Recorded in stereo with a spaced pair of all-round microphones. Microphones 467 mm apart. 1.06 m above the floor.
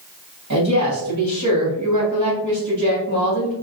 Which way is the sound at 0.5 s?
40° right (ahead or behind).